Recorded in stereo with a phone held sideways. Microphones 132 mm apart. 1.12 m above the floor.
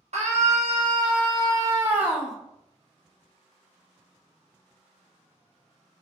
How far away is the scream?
About 1.4 m.